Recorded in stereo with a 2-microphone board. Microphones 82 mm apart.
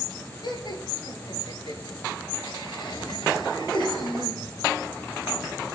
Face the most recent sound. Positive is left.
turn(degrees=80)